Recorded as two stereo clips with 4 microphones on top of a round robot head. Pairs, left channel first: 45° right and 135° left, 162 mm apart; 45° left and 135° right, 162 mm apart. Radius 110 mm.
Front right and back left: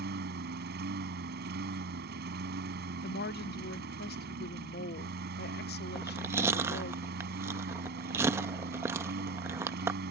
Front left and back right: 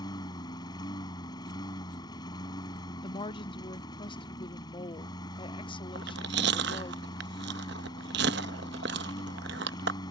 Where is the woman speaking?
20° right.